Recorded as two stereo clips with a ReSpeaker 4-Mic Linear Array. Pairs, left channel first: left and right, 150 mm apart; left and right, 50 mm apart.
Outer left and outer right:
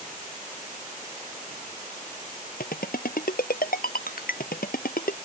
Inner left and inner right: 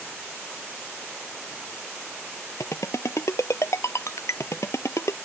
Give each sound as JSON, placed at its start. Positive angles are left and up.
{"t": 2.6, "sound": "a ringtone", "side_deg": 80}